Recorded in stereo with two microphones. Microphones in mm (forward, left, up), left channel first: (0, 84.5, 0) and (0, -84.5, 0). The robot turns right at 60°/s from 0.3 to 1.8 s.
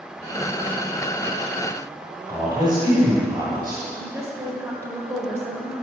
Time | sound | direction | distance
2.3 | a man speaking | 25° right (ahead or behind) | 1.5 m
4.0 | a woman speaking | 20° right (ahead or behind) | 1.2 m